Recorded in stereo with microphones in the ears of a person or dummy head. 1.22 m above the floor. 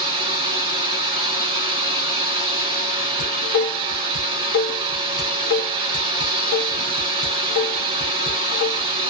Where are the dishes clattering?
60° left (ahead or behind), 0.9 m.